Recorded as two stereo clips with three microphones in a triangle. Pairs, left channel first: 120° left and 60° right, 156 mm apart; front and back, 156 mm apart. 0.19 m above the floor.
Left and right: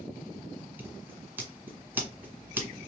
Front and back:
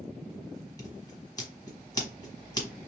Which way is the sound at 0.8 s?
Straight ahead.